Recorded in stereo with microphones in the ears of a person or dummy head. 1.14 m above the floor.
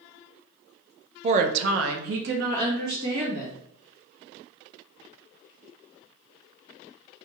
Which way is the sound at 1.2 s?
30° right (ahead or behind).